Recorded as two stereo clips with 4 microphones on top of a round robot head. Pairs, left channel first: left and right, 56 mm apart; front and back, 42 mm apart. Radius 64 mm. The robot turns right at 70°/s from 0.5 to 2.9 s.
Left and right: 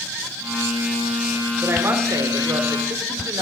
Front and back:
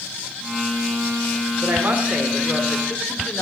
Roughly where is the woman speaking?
Behind right.